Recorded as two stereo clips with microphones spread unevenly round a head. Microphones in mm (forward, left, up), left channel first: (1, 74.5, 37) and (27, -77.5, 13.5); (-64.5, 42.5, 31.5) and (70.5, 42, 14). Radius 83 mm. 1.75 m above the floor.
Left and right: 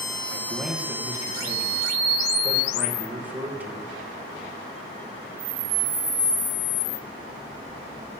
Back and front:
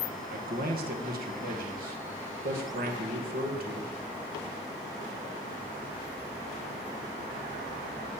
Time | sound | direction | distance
0.3 | a man speaking | straight ahead | 2.5 m